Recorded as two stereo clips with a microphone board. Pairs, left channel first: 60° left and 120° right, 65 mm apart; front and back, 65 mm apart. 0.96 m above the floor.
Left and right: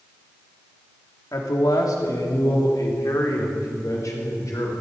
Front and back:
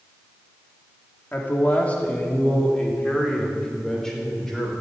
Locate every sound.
1.3 s a man speaking: 60° left, 2.5 m; by 4.7 s 85° left, 4 m